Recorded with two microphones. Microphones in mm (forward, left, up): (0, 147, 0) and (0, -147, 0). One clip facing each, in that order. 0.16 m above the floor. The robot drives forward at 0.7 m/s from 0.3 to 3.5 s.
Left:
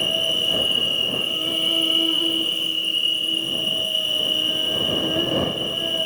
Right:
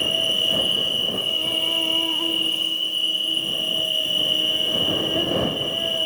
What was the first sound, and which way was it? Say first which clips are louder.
An insect: even; 5° left (ahead or behind).